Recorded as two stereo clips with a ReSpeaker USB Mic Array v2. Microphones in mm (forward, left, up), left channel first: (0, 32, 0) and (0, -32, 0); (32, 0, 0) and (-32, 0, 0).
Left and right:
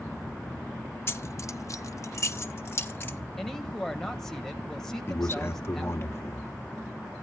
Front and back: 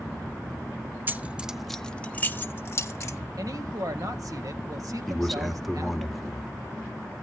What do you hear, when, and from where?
1.1 s keys jangling: 130° left, 0.6 m; by 3.2 s 40° left, 1.1 m
3.4 s a woman speaking: 175° left, 1.8 m
5.1 s a man speaking: 90° left, 1.3 m